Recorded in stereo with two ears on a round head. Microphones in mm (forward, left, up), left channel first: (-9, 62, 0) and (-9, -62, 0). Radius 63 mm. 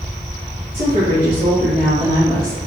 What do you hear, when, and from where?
0.7 s a woman speaking: 40° right (ahead or behind), 1.2 m; by 2.6 s 25° right (ahead or behind), 2 m